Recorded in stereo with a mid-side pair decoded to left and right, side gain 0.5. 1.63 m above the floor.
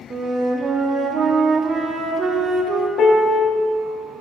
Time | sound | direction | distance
0.1 | a flute | 35° right | 1.3 m
3.0 | a piano | 55° left | 1.1 m